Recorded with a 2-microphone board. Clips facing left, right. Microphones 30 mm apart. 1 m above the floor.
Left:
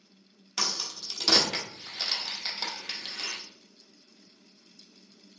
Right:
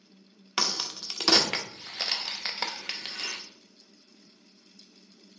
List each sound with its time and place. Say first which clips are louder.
0.6 s a crack: right 2 dB; 35° right (ahead or behind), 0.6 m